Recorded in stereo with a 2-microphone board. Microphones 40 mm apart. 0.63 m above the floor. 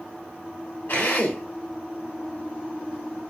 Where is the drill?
55° left (ahead or behind), 2.0 m.